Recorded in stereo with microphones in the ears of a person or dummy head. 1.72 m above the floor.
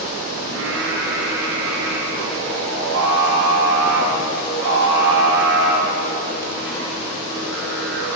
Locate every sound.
0.5 s singing: 80° right, 2.5 m